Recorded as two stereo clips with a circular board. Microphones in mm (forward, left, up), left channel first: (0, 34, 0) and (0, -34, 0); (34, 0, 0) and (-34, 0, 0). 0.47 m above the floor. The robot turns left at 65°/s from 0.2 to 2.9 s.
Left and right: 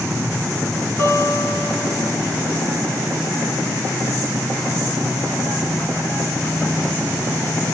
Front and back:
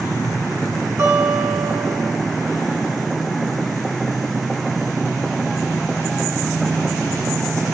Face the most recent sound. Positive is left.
turn(degrees=10)